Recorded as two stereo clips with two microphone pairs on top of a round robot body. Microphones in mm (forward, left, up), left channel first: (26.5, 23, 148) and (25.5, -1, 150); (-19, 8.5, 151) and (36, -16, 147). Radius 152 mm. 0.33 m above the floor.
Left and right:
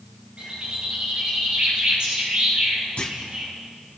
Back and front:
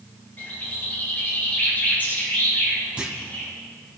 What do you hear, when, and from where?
0.4 s a bird: 145° right, 8 m
3.0 s a clunk: 50° left, 3 m